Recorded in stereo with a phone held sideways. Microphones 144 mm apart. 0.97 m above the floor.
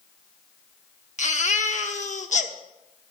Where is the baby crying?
55° left (ahead or behind), 0.8 m.